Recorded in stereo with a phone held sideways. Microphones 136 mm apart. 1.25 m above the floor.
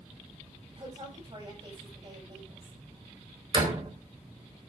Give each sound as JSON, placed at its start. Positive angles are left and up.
{"t": 0.8, "sound": "a woman speaking", "side_deg": -35, "distance_m": 9.0}
{"t": 3.5, "sound": "a door slam", "side_deg": -35, "distance_m": 3.5}